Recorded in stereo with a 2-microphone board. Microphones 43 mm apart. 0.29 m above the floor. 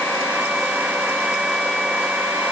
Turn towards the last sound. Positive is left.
No sound to turn to.